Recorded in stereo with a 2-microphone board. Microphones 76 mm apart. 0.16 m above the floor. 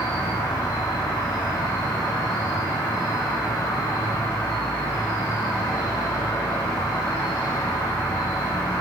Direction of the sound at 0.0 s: 65° left (ahead or behind).